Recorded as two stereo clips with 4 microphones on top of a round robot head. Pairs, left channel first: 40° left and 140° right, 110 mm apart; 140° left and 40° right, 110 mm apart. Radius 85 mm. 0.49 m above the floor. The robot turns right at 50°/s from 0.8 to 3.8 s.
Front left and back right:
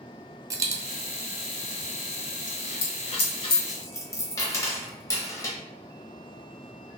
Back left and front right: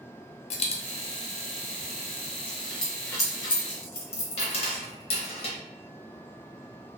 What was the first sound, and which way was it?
A dropped coin, 160° left.